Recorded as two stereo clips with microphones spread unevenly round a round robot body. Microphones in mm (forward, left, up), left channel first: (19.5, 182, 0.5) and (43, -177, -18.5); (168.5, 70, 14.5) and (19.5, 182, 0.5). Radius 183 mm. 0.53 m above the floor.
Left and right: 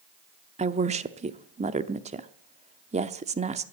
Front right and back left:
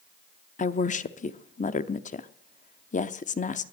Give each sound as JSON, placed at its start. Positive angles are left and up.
{"t": 0.6, "sound": "a woman speaking", "azimuth_deg": -30, "distance_m": 0.8}